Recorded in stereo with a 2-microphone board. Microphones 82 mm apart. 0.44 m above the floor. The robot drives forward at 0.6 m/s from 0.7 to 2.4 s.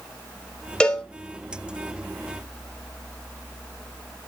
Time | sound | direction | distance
0.8 | a cowbell | 15° left (ahead or behind) | 1.3 m